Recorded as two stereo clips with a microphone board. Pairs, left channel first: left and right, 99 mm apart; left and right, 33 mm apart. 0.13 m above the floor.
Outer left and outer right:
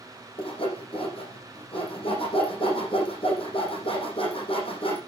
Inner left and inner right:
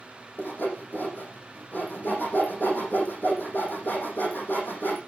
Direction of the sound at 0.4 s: 70° left (ahead or behind).